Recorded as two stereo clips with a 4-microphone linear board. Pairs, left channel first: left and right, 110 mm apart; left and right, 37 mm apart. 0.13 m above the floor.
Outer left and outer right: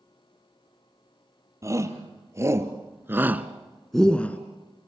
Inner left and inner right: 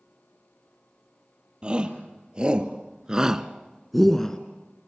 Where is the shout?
30° right (ahead or behind), 3 m; by 4.4 s 15° left (ahead or behind), 1.5 m.